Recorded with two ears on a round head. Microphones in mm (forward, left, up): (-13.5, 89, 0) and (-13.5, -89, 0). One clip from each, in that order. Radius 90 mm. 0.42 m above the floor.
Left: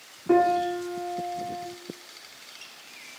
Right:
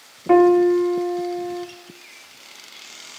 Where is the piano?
80° right, 1.3 m.